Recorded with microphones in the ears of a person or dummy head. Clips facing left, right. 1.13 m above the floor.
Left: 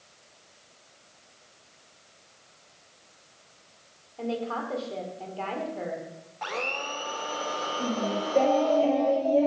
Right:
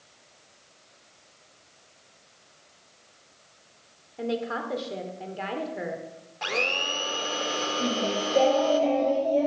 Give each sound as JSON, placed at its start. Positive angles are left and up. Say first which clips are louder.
{"t": 4.2, "sound": "a woman speaking", "louder": "right 1 dB", "side_deg": -20, "distance_m": 2.5}
{"t": 6.4, "sound": "a blender", "louder": "right 3 dB", "side_deg": -30, "distance_m": 0.9}
{"t": 7.8, "sound": "singing", "louder": "right 1 dB", "side_deg": 0, "distance_m": 4.0}